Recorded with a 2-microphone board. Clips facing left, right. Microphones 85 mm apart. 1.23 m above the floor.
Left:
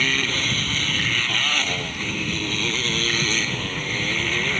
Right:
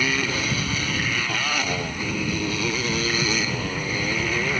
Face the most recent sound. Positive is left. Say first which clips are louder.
# right 1 dB
turn(degrees=-10)  # may be behind; listen again after turning